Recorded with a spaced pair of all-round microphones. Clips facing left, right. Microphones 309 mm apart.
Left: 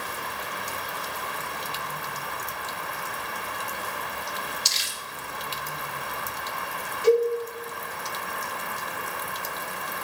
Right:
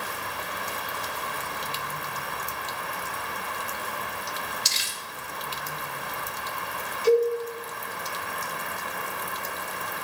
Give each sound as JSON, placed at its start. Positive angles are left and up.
{"t": 4.7, "sound": "crumpling", "side_deg": -65, "distance_m": 1.3}
{"t": 7.0, "sound": "a cowbell", "side_deg": 80, "distance_m": 5.0}